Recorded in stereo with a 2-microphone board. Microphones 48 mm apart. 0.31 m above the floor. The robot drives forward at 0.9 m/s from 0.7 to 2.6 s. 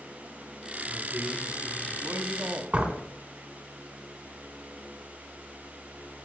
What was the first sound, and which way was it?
A man speaking, 20° right (ahead or behind).